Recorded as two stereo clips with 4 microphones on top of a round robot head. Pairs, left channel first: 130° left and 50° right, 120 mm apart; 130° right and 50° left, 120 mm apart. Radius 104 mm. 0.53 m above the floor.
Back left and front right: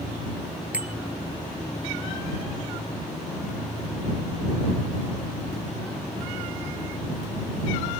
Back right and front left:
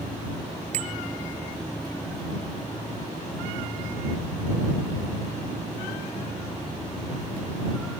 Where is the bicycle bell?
25° left.